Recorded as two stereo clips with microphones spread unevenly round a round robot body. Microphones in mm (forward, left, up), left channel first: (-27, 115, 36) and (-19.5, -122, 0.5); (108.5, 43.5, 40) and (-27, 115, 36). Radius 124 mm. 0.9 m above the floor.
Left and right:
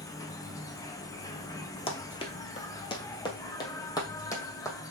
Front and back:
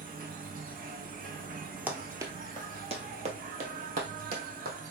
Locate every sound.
0.0 s an insect: 170° left, 0.7 m
1.9 s running footsteps: 80° left, 1.0 m; by 4.9 s 165° left, 1.8 m